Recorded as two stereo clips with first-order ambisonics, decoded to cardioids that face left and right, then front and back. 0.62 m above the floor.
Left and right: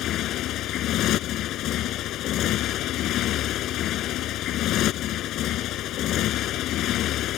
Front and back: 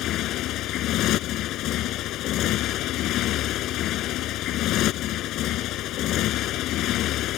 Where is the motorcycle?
45° left.